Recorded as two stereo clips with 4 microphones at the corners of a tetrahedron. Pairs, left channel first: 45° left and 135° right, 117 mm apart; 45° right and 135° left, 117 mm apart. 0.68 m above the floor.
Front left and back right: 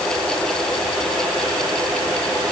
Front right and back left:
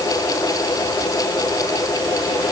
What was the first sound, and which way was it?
Only background noise.